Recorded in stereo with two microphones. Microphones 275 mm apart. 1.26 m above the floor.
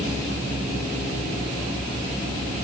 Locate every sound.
Only background noise.